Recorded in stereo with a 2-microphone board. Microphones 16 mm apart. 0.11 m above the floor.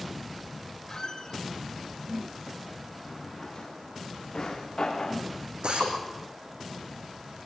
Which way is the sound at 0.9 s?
45° left (ahead or behind).